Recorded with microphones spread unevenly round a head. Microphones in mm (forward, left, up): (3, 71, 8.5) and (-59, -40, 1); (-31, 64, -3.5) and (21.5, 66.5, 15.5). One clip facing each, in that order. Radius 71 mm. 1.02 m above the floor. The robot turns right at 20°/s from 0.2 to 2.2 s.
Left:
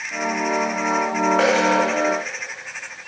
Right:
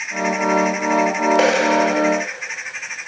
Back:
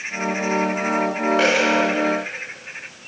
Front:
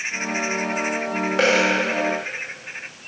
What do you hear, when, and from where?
1.4 s a dropped coin: 55° right, 2.5 m; by 1.6 s 50° right, 2.5 m